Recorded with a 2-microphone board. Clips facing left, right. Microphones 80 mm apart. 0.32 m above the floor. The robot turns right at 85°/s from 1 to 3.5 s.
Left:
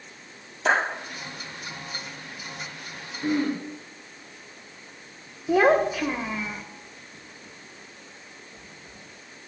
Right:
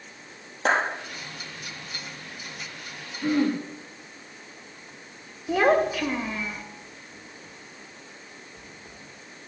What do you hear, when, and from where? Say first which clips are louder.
0.7 s a clap: left 1 dB; 50° right (ahead or behind), 5.5 m
3.2 s throat clearing: right 2 dB; 5° left (ahead or behind), 5 m; by 3.6 s 20° right (ahead or behind), 5 m
5.5 s a child speaking: left 2 dB; 10° left (ahead or behind), 0.6 m